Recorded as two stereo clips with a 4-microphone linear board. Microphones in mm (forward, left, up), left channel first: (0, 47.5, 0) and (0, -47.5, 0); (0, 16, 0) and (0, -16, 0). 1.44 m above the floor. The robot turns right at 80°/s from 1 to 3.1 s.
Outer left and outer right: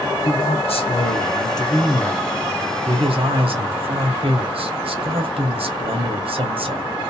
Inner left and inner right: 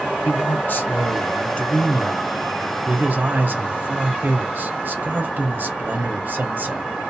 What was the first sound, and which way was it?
A man speaking, 90° left.